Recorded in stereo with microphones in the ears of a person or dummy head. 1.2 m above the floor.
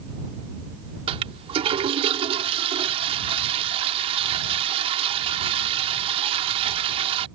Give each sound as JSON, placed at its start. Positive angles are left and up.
{"t": 1.1, "sound": "a toilet flushing", "side_deg": -30}